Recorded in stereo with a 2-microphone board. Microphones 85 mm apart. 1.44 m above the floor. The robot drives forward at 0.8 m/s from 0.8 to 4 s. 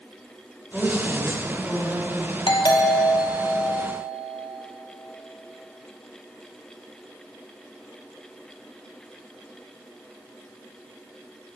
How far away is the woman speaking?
About 4 m.